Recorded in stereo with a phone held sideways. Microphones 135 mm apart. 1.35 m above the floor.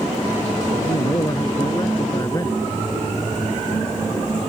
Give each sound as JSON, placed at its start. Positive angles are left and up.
{"t": 0.7, "sound": "a man speaking", "side_deg": 25}